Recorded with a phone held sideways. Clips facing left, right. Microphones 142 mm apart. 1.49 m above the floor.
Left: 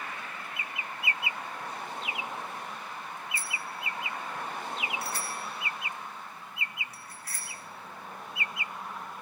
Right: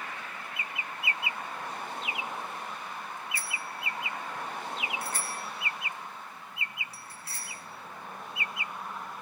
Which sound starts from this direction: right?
A bicycle bell, at 3.4 s.